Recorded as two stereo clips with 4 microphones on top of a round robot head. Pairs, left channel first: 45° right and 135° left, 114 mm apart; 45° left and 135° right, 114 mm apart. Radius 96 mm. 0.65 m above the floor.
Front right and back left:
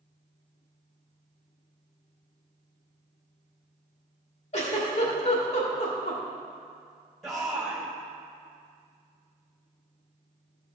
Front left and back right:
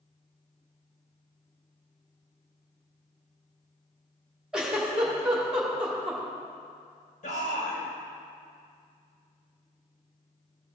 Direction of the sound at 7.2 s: 45° left.